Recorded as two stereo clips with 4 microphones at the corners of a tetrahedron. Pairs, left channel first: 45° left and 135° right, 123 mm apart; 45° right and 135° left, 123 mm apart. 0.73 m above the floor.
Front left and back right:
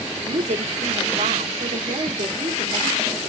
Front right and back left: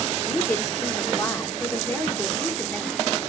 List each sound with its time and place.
0.2 s a woman speaking: 115° right, 2.5 m